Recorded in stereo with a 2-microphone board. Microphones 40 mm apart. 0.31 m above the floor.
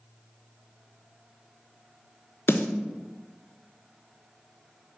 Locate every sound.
2.5 s a snare drum: 85° left, 1.1 m